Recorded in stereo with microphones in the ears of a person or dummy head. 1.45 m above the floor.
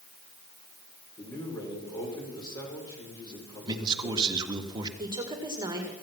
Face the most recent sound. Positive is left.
turn(degrees=-20)  # may be behind; listen again after turning